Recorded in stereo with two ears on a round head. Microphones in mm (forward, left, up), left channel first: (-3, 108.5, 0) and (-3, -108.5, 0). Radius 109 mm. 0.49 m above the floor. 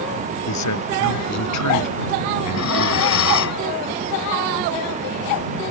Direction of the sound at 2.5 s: 65° left (ahead or behind).